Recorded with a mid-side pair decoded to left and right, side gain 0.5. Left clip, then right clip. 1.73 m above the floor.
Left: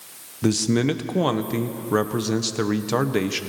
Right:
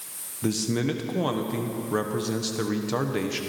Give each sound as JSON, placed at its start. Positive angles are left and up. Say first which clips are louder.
{"t": 0.4, "sound": "a man speaking", "louder": "left 5 dB", "azimuth_deg": 35, "distance_m": 1.1}